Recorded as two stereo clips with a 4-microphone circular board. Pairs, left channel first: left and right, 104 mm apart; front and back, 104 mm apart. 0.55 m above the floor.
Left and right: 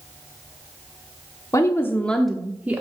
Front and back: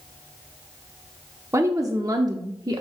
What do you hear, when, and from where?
1.5 s a woman speaking: 130° left, 0.8 m; by 2.8 s 150° right, 0.8 m